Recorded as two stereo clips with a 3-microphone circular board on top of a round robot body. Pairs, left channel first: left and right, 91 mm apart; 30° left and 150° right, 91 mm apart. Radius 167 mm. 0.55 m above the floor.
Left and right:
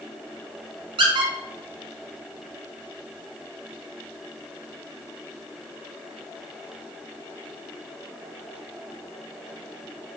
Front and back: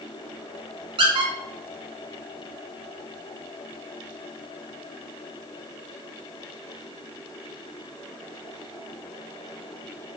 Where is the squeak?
120° right, 0.8 m.